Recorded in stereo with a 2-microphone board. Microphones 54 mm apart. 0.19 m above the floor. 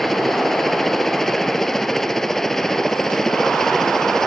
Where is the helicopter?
5° left (ahead or behind).